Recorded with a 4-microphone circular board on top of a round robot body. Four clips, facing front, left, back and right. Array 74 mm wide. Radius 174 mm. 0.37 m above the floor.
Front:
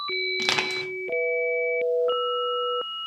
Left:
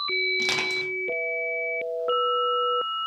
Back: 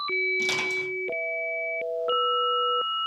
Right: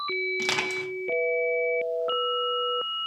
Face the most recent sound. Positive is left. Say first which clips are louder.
# left 1 dB, even
turn(degrees=-10)